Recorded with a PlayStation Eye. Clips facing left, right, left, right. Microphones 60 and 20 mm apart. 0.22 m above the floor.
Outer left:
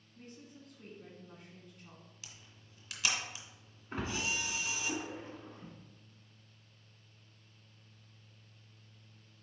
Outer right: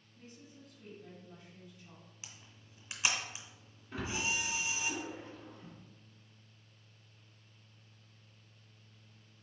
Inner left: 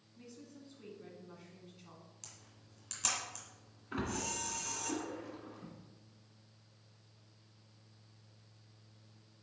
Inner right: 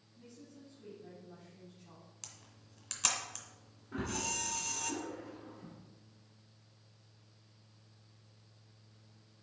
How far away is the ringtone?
No ringtone in this recording.